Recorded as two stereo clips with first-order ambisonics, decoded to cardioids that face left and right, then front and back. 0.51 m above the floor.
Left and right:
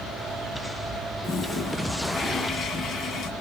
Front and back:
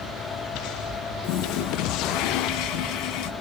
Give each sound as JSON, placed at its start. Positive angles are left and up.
{"t": 1.2, "sound": "a toilet flushing", "azimuth_deg": 25, "distance_m": 2.0}